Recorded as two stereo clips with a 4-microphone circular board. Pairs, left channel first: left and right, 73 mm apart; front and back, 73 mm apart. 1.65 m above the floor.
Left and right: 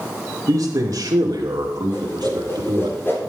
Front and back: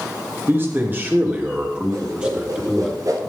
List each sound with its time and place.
0.5 s a man speaking: 125° right, 2.5 m; by 2.9 s 95° right, 3 m
1.9 s a whoosh: 150° left, 4 m